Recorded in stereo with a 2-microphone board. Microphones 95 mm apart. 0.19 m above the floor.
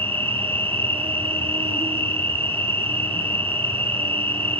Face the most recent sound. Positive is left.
turn(degrees=-75)  # may be behind; listen again after turning